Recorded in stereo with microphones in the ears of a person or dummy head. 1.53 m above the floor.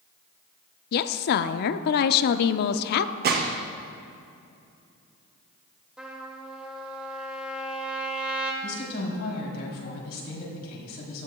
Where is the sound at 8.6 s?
65° left (ahead or behind), 3.5 m.